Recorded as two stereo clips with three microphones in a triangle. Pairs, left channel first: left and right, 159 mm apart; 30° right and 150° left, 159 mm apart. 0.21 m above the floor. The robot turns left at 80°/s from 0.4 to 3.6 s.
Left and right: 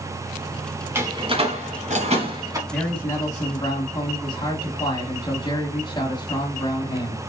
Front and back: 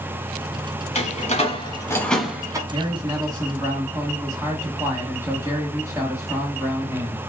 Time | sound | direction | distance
0.9 | a door slam | 20° right | 1.5 m
2.7 | a man speaking | 170° left | 1.4 m